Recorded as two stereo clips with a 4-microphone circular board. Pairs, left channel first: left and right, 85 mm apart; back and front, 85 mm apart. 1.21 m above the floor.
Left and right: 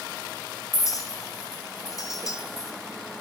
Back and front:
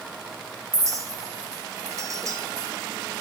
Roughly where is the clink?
Ahead left.